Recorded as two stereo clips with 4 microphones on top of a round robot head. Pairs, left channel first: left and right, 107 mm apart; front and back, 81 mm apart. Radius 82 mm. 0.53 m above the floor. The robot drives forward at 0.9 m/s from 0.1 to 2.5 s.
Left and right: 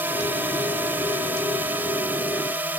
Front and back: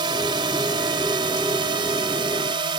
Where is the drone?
165° right.